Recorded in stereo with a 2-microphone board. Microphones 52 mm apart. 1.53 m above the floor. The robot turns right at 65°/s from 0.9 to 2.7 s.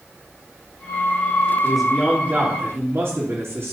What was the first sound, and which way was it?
A man speaking, 170° left.